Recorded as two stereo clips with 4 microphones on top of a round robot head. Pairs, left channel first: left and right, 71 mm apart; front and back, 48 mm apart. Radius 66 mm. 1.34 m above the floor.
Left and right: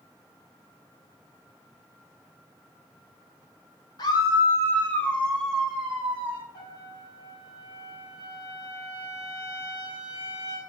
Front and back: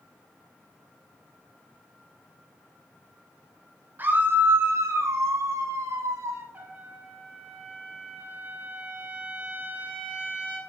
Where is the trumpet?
130° left, 3 m.